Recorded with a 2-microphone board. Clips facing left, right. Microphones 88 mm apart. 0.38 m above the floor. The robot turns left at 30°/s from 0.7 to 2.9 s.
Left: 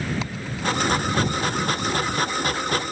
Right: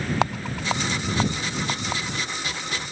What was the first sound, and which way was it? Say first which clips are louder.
A rattle: right 2 dB; 60° right (ahead or behind).